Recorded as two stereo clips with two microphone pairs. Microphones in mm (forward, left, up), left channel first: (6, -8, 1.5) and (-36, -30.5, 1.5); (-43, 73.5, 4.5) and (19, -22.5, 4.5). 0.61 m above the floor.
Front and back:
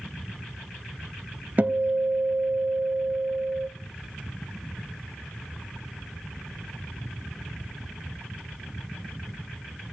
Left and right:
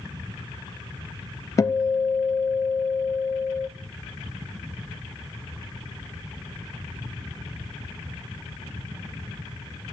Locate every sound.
1.6 s a guitar: 175° left, 0.6 m